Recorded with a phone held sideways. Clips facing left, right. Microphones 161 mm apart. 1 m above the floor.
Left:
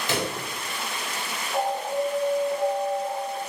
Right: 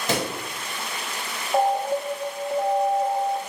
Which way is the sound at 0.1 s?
40° right (ahead or behind).